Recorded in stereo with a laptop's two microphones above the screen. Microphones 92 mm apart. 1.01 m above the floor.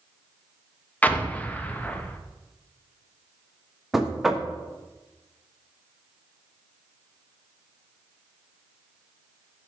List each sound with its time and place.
1.0 s an explosion: 15° left (ahead or behind), 0.6 m
3.9 s knocking: 5° right (ahead or behind), 1.1 m